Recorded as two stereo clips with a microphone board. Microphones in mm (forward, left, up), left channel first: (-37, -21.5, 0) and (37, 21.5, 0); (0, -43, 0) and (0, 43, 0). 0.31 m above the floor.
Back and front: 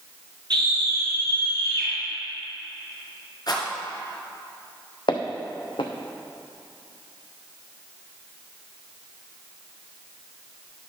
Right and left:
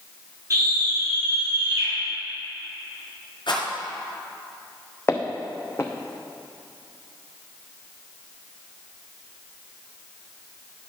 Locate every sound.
0.5 s a scream: 45° left, 3.5 m
3.5 s a rattle: 115° right, 2.5 m
5.1 s footsteps: 150° right, 1.1 m